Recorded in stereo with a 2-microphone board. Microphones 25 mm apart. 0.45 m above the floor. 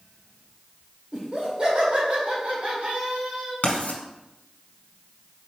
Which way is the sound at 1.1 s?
40° right (ahead or behind).